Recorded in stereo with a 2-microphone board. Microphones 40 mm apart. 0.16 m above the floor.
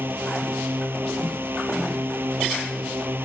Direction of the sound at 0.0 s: 60° right (ahead or behind).